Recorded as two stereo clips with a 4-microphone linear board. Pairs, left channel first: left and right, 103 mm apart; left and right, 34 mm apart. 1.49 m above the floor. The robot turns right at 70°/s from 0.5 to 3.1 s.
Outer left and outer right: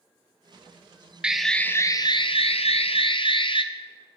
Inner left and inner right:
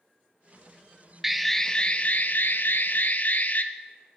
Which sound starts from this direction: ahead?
An alarm, at 1.2 s.